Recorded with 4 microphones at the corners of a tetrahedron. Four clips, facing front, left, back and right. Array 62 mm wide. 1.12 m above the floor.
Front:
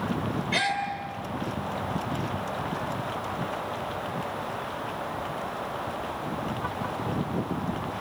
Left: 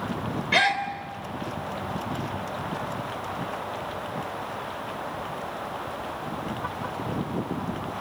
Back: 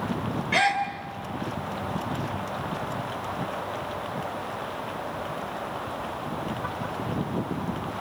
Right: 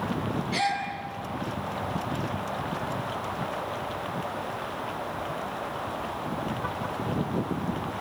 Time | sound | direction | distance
0.5 | a gasp | 105° left | 3.5 m